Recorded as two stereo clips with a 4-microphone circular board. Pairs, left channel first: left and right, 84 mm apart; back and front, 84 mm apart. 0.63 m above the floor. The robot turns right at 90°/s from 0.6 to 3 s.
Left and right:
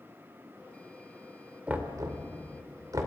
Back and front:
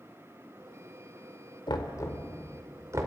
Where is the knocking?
165° right, 2 m; by 3.1 s 45° right, 2 m.